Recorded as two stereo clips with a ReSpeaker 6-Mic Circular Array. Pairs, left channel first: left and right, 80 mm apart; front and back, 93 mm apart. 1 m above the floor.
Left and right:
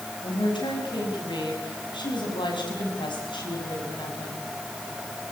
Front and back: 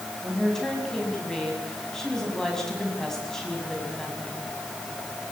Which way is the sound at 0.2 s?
85° left.